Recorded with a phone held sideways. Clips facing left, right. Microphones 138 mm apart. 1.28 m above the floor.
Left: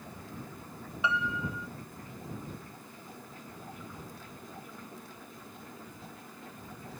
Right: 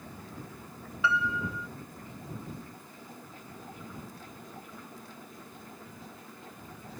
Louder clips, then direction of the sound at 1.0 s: Right 2 dB; 20° left (ahead or behind).